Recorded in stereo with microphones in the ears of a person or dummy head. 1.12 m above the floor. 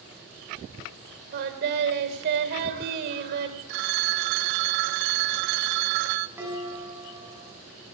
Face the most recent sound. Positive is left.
turn(degrees=-10)  # may be behind; listen again after turning